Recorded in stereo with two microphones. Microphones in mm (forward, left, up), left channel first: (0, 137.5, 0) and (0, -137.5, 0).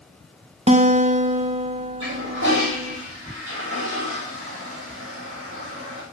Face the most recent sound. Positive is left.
turn(degrees=-50)  # may be behind; listen again after turning